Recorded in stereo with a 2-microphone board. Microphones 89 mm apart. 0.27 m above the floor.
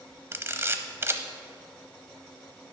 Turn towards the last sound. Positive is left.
turn(degrees=-30)  # may be behind; listen again after turning